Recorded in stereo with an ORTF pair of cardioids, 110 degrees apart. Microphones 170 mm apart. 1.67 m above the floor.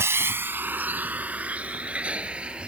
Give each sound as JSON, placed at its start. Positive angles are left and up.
{"t": 0.0, "sound": "a vehicle", "azimuth_deg": -15}